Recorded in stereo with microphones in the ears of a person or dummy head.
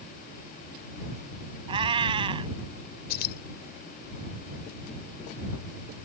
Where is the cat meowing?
25° right (ahead or behind).